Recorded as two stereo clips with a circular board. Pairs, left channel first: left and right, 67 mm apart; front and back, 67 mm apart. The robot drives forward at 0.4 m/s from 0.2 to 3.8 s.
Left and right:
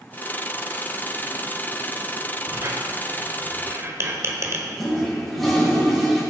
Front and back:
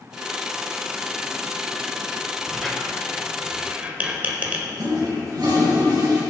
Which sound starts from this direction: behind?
A toilet flushing, at 4.8 s.